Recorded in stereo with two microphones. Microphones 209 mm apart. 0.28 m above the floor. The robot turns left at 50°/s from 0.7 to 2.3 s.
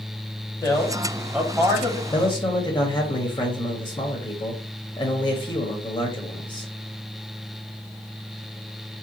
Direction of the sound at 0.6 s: 25° left.